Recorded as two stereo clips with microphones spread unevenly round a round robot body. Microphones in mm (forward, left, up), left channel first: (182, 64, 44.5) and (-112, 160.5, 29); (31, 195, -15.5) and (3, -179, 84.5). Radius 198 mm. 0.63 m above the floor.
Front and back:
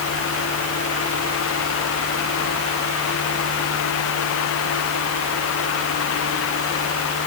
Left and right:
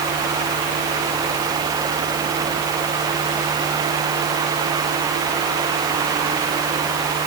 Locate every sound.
Only background noise.